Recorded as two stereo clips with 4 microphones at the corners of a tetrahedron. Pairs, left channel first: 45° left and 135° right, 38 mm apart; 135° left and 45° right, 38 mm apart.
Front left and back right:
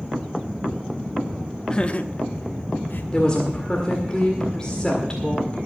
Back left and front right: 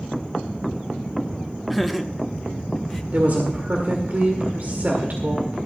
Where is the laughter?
40° left, 0.6 m.